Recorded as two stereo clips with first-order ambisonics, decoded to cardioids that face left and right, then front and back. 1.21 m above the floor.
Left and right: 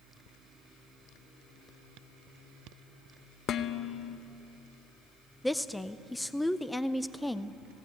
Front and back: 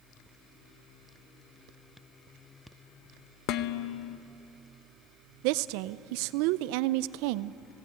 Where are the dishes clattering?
35° left, 0.7 m.